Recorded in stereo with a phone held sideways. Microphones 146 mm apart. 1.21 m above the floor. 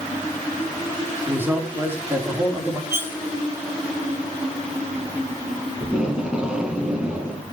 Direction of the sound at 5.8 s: 5° right (ahead or behind).